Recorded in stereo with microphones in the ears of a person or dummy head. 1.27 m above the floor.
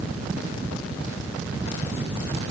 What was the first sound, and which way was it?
Only background noise.